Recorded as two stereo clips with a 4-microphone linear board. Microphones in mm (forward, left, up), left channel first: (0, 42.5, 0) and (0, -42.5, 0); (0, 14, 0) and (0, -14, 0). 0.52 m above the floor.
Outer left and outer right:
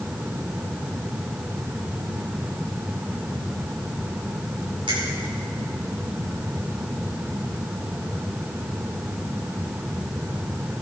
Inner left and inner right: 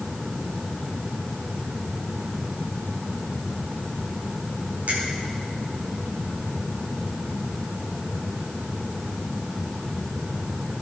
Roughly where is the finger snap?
Right.